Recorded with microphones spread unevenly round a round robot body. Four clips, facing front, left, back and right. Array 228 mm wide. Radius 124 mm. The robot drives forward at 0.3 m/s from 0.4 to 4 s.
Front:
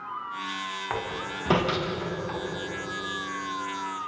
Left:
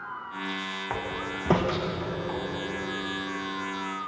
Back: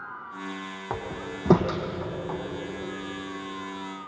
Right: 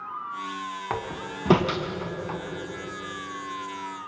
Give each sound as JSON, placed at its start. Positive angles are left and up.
{"t": 0.9, "sound": "a door slam", "azimuth_deg": -140, "distance_m": 3.0}